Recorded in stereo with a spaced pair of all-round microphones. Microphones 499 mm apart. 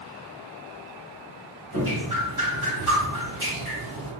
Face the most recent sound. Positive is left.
turn(degrees=-40)  # may be behind; listen again after turning